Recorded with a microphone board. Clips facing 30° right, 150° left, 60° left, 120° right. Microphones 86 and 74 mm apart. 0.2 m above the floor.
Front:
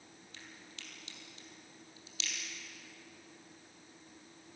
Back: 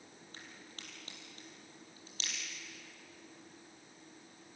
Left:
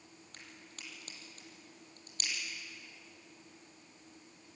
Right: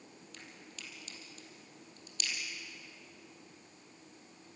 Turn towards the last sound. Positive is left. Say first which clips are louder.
# even, right 1 dB
turn(degrees=105)